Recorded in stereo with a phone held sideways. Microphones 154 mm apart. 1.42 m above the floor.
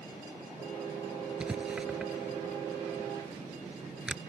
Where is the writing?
5° right (ahead or behind).